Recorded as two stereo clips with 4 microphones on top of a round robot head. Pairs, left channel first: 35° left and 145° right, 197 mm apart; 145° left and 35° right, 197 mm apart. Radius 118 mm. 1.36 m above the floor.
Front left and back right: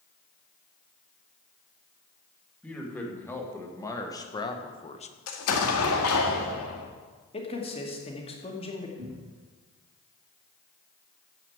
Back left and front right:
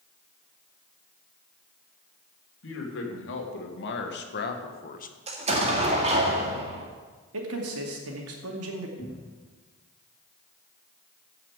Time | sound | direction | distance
2.6 | a man speaking | 120° left | 2.5 m
5.3 | an explosion | 25° left | 1.8 m
7.3 | a man speaking | 25° right | 2.5 m
9.0 | a cupboard door | 160° right | 2.5 m